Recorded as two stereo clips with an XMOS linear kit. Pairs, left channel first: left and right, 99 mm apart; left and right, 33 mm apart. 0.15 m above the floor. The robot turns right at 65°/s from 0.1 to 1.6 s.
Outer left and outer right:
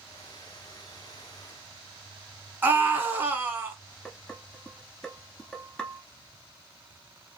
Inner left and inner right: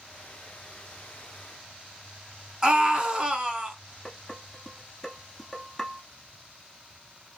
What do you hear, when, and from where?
2.6 s a scream: 20° right (ahead or behind), 1.4 m
4.0 s dishes clattering: 5° left (ahead or behind), 1.3 m